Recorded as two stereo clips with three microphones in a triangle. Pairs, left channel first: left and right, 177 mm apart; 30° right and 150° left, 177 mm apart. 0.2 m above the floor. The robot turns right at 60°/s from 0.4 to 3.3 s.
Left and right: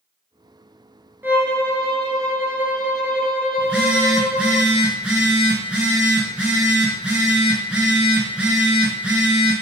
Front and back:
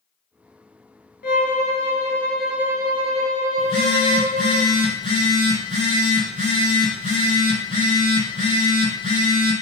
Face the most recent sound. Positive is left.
turn(degrees=-170)